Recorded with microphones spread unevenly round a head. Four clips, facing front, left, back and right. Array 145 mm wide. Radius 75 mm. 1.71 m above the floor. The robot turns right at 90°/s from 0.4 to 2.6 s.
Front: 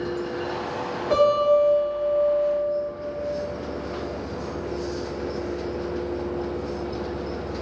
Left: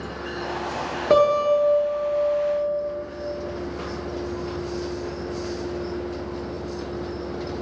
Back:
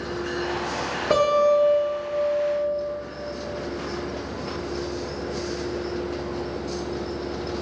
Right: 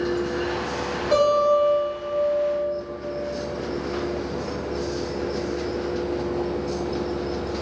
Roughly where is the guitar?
Behind left.